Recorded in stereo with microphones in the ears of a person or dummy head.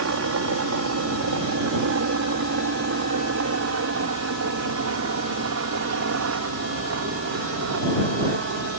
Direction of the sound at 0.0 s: 55° right (ahead or behind).